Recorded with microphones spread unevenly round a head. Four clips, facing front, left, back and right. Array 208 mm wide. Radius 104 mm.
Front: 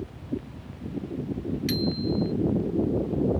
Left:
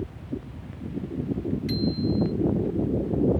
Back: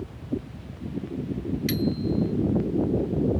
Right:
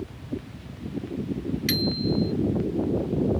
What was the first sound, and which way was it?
A bicycle bell, 75° right.